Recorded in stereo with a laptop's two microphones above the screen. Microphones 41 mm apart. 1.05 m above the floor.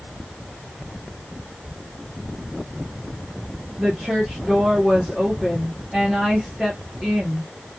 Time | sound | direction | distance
3.8 | a woman speaking | 15° right (ahead or behind) | 1.0 m